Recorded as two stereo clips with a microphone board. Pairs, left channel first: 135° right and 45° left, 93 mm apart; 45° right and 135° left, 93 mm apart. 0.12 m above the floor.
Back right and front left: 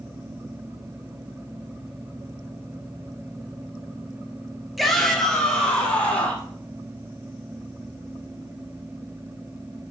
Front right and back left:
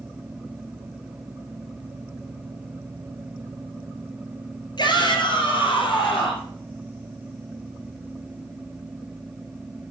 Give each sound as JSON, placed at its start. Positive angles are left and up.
{"t": 4.8, "sound": "a shout", "azimuth_deg": -45, "distance_m": 2.0}